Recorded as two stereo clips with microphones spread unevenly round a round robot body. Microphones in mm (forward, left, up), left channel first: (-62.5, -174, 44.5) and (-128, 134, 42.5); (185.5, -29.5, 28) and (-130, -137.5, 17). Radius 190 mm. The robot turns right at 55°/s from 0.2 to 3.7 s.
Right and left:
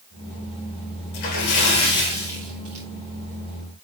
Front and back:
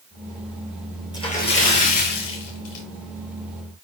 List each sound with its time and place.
1.1 s a splash: 60° right, 3 m; by 2.9 s 35° left, 3 m